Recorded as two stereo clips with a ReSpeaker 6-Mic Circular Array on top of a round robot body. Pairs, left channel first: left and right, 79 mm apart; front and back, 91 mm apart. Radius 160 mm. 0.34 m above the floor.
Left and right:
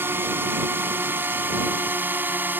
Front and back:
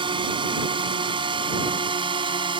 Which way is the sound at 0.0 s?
155° right.